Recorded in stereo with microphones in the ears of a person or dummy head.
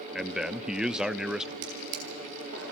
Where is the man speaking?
Centre (ahead or behind), 0.5 m.